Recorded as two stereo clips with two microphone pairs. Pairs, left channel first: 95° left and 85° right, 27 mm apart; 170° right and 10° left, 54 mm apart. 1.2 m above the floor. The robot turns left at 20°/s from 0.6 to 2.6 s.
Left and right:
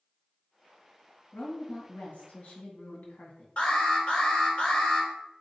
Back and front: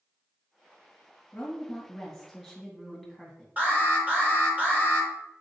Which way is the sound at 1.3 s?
120° left.